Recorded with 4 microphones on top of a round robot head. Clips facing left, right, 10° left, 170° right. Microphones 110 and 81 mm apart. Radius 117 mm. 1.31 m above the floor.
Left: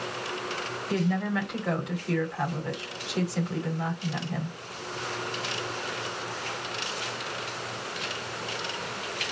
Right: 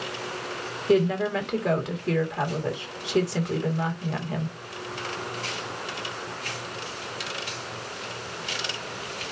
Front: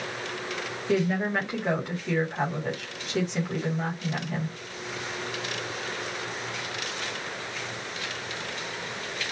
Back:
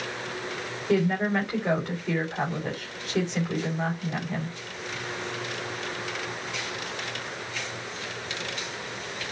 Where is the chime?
No chime in this recording.